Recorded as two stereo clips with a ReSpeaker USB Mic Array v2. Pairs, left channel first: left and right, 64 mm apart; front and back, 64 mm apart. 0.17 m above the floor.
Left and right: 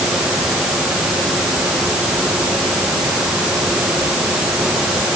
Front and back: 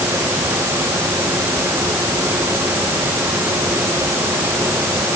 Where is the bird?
No bird in this recording.